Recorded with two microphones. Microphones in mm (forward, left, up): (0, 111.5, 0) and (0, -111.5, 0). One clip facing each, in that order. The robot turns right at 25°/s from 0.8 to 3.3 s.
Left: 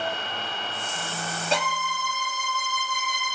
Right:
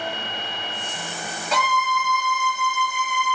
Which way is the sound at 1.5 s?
45° left.